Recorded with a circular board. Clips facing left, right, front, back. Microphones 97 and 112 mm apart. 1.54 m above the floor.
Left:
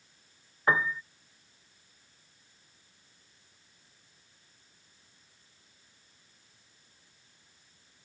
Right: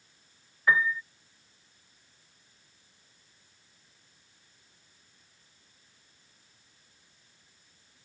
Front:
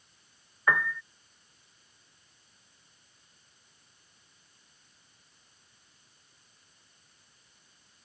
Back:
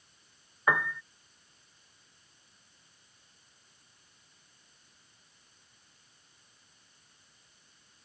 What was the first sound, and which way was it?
A piano, 115° left.